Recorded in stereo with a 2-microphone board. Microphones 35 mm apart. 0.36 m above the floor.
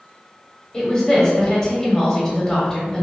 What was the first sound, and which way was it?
A woman speaking, 20° left (ahead or behind).